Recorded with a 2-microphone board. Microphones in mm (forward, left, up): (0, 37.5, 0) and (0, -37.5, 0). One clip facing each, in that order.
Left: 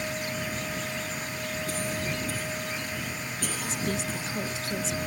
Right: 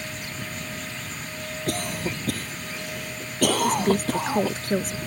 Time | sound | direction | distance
1.7 | a cough | 80° right | ?
3.6 | a woman speaking | 50° right (ahead or behind) | ?